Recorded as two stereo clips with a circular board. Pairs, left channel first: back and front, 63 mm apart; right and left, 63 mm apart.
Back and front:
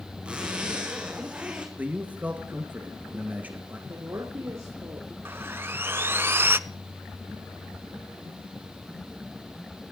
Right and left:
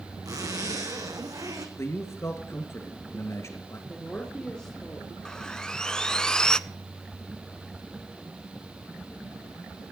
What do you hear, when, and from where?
0.2 s a zipper: 70° left, 3 m
1.8 s a man speaking: 60° right, 2 m
3.9 s a woman speaking: 15° right, 3 m
5.2 s sawing: 20° right, 0.6 m